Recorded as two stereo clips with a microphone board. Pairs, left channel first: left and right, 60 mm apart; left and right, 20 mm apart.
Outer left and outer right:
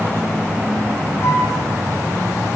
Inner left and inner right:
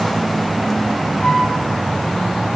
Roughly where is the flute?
Left.